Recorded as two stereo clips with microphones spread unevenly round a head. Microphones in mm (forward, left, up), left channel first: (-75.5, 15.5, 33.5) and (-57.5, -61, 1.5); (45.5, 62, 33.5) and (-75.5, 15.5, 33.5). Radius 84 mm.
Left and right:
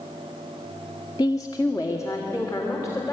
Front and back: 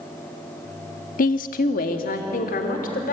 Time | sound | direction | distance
1.2 | a woman speaking | 35° left | 0.8 m